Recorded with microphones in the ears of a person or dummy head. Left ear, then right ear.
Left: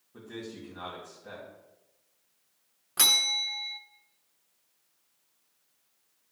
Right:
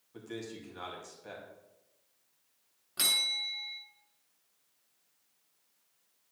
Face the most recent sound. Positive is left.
turn(degrees=25)  # may be behind; listen again after turning